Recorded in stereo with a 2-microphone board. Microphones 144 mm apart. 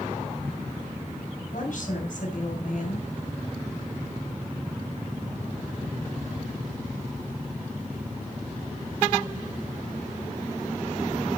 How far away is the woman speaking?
About 3.5 m.